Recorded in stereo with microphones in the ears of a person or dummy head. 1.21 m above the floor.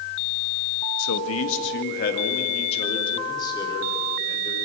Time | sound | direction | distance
1.0 | a man speaking | 85° left | 1.8 m